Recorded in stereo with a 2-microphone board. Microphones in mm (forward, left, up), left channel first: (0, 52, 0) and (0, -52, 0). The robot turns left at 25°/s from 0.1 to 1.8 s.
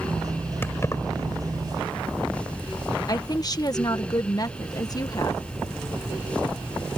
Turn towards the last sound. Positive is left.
turn(degrees=40)  # may be behind; listen again after turning